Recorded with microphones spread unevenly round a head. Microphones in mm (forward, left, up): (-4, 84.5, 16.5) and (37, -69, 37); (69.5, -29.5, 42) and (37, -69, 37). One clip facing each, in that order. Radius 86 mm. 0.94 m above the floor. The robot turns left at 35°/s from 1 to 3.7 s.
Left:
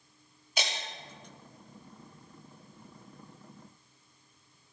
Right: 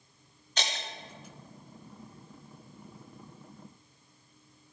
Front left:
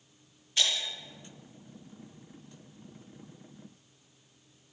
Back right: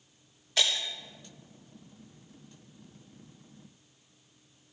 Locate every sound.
0.6 s breaking glass: 170° right, 1.0 m